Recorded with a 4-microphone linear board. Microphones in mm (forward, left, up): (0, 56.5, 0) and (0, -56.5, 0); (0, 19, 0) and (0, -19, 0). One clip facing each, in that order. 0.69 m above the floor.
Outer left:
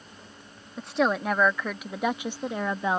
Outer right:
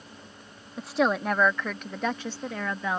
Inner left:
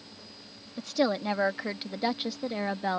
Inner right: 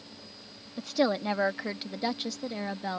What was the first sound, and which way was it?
A woman speaking, 5° right (ahead or behind).